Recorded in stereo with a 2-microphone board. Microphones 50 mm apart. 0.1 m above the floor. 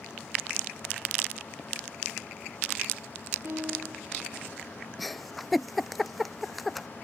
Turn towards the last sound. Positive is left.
turn(degrees=0)  # may be behind; listen again after turning